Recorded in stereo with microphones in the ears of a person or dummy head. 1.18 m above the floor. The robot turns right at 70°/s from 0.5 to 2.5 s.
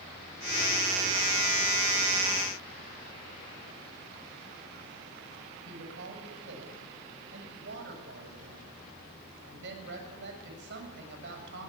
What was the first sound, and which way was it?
A woman speaking, 70° right (ahead or behind).